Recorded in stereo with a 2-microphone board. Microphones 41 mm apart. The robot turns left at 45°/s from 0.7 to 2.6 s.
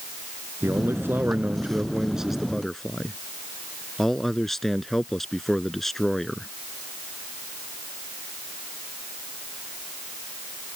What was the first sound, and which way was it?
A man speaking, 100° right.